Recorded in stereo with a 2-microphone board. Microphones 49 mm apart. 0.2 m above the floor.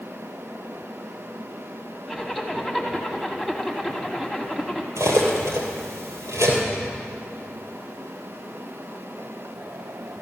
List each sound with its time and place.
2.1 s a zipper: centre (ahead or behind), 1.5 m
5.0 s cutlery clinking: 75° right (ahead or behind), 3 m